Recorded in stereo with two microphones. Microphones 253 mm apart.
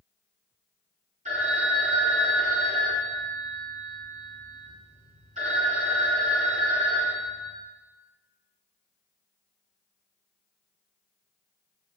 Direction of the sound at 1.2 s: 30° right (ahead or behind).